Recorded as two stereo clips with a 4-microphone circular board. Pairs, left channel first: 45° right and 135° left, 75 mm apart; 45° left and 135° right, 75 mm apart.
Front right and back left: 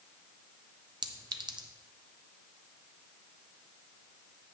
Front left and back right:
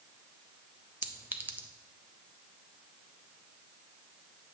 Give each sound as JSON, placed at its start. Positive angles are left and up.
{"t": 1.0, "sound": "a clink", "azimuth_deg": 160, "distance_m": 0.5}